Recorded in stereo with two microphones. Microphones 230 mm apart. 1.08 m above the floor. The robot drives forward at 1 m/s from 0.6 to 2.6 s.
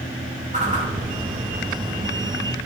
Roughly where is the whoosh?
Right.